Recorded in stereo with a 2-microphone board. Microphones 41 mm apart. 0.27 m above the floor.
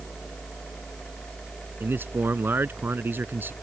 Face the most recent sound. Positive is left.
turn(degrees=-65)  # may be behind; listen again after turning